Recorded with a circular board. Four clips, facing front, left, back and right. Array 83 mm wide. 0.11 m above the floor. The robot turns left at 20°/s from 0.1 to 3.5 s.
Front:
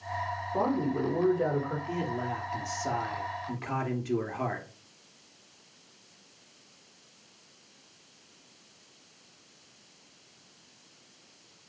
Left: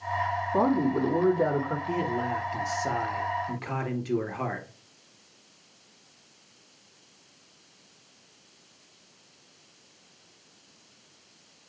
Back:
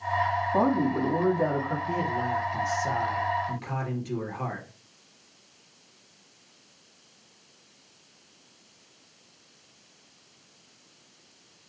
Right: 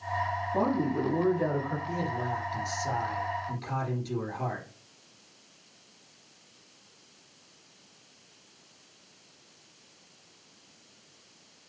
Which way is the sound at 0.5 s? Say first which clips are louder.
Left 4 dB, back 3 dB; 150° left.